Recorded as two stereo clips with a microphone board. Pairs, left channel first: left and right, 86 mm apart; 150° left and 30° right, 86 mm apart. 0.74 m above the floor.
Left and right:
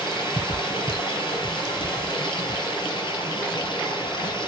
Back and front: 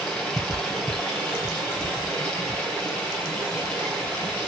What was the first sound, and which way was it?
Running water, 70° left.